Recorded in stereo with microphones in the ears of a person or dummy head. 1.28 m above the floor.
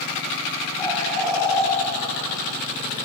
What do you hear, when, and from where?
0.8 s a bird: 5° left (ahead or behind), 9 m